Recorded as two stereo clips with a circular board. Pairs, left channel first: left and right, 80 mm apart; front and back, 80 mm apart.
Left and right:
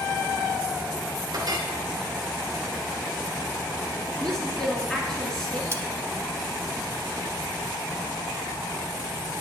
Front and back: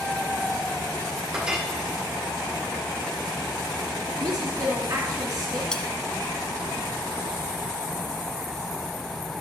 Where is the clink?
105° right, 2.0 m.